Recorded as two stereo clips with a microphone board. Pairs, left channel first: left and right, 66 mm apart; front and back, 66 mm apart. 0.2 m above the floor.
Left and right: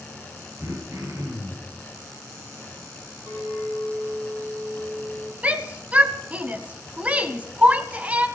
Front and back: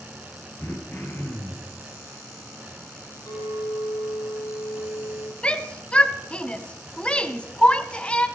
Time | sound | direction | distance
0.6 | throat clearing | 55° right | 3.5 m
3.3 | a clink | 35° right | 5.5 m
5.4 | a shout | 50° right | 1.2 m